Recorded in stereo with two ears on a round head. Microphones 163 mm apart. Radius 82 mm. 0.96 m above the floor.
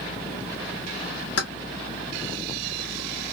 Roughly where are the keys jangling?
Left.